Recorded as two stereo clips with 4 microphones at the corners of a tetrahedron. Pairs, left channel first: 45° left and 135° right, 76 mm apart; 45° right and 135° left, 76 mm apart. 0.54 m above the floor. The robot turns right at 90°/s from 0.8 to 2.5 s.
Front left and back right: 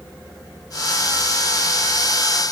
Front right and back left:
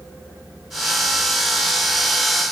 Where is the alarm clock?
I don't hear an alarm clock.